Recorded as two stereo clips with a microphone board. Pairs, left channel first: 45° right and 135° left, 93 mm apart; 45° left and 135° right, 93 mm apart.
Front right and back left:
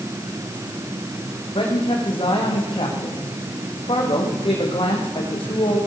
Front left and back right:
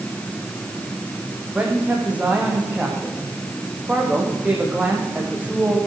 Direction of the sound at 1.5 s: 60° right.